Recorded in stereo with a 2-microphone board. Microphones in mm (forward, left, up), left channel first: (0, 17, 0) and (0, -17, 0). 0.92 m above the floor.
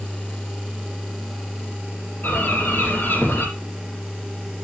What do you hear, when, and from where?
2.2 s a bird: 80° left, 6 m